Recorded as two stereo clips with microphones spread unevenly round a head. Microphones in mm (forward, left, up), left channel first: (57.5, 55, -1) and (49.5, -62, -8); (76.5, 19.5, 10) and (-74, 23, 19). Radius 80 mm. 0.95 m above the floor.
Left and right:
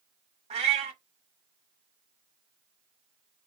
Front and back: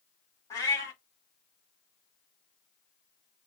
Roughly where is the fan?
I don't hear a fan.